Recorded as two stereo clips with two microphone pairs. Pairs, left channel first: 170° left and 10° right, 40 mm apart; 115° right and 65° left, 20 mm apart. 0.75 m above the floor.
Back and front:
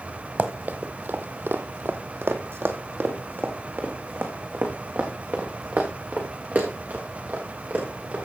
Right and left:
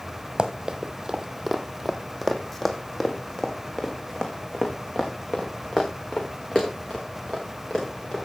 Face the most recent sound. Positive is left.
turn(degrees=-55)